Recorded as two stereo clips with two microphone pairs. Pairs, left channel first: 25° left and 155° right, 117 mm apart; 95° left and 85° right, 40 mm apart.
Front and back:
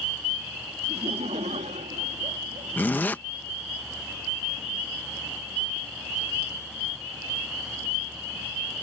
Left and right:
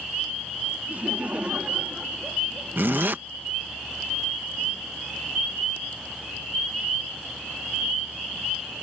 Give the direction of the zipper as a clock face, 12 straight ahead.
2 o'clock.